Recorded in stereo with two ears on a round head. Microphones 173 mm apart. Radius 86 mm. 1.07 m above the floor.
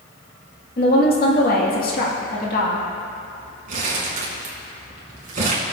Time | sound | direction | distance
0.8 | a woman speaking | 50° left (ahead or behind) | 2 m
3.7 | crumpling | 40° right (ahead or behind) | 3.5 m